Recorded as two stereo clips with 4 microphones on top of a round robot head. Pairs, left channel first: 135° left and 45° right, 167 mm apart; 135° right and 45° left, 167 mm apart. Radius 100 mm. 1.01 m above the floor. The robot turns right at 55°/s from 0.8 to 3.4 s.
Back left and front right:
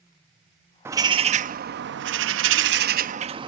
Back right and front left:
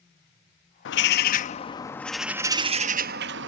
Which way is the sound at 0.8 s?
120° right.